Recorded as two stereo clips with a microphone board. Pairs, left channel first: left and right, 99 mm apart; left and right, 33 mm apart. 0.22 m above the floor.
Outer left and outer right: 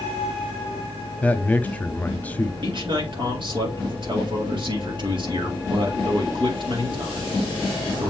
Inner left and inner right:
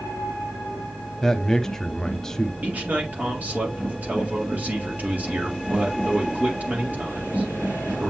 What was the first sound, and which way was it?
A man speaking, 15° left (ahead or behind).